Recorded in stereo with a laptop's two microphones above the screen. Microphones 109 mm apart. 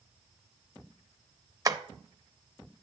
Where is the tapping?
35° right (ahead or behind), 0.6 m.